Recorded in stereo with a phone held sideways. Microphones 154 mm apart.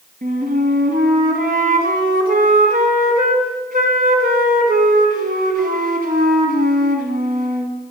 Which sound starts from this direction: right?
A flute, at 0.2 s.